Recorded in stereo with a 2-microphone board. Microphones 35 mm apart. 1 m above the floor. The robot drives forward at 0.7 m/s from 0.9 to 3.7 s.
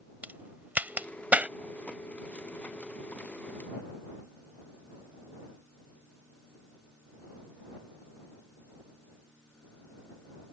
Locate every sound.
0.2 s a crack: 55° right (ahead or behind); by 1.5 s 45° right (ahead or behind)